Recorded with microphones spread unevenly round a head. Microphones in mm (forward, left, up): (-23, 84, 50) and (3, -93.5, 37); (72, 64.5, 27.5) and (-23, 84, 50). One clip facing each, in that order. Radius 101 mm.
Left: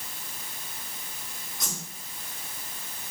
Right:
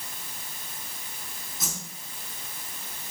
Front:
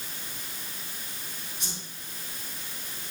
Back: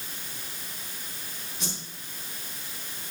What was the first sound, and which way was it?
A whoosh, 170° right.